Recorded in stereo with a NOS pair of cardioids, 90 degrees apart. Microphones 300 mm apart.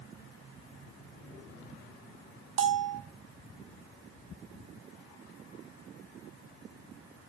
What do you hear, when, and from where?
2.6 s a bell: 45° right, 0.5 m